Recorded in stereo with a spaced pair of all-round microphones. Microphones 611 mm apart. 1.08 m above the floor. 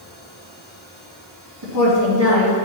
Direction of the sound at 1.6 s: 40° right (ahead or behind).